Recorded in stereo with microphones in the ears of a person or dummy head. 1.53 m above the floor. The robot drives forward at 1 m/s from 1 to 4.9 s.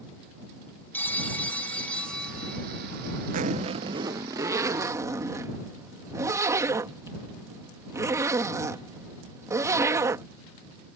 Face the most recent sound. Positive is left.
turn(degrees=-15)  # may be behind; listen again after turning